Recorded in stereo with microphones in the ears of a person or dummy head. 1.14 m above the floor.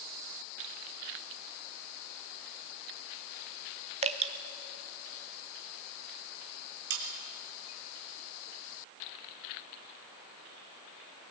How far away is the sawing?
About 3 m.